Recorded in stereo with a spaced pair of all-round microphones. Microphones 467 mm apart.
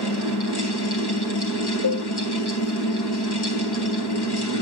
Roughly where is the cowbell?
Left.